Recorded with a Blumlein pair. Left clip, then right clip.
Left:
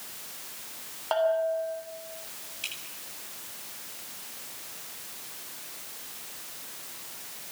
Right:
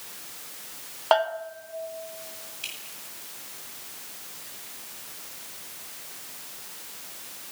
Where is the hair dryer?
I don't hear a hair dryer.